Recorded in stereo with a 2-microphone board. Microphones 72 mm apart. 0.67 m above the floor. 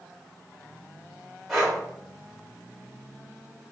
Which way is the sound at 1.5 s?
Centre (ahead or behind).